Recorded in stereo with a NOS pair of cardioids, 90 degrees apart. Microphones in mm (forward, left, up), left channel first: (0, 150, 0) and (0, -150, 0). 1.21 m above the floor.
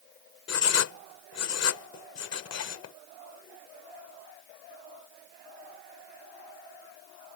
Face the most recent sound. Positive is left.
turn(degrees=55)